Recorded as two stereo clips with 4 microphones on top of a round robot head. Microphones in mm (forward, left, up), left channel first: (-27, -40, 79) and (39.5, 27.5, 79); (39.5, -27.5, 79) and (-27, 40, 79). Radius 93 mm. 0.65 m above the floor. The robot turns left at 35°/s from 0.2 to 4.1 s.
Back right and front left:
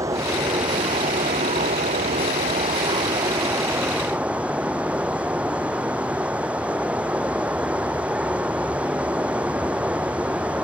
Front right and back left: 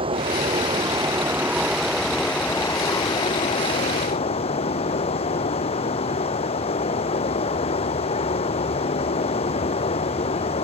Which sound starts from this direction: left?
Running water, at 0.0 s.